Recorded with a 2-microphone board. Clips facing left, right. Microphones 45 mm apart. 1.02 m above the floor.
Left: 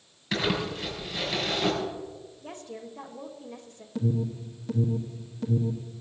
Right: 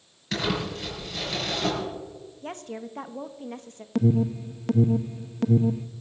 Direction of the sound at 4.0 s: 70° right (ahead or behind).